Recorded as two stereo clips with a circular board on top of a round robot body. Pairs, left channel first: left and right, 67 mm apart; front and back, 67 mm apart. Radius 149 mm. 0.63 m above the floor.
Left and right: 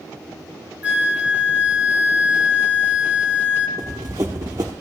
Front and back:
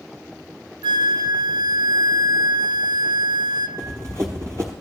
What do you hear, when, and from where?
0.8 s a flute: 160° right, 1.2 m
3.8 s running footsteps: 135° right, 0.8 m